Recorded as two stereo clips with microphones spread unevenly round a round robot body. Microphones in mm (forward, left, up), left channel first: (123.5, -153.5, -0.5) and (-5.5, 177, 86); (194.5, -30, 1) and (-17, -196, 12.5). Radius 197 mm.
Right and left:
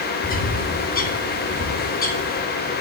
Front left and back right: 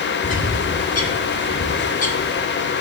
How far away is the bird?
About 2 m.